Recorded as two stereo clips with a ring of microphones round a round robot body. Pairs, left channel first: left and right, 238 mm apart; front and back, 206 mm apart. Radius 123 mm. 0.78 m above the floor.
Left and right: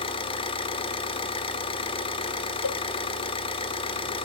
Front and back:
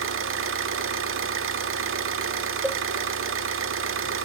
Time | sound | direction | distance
0.0 | an engine running | 160° left | 1.4 m
2.6 | a cowbell | 95° left | 0.8 m